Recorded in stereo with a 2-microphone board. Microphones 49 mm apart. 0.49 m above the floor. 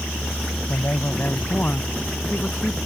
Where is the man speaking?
55° left (ahead or behind); by 2.8 s 40° left (ahead or behind).